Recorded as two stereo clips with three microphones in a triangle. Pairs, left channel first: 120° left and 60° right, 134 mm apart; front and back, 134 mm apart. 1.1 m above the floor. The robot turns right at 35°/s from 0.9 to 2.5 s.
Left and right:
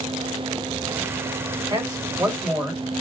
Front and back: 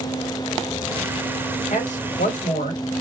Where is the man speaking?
10° right, 1.6 m; by 2.8 s 20° left, 1.6 m.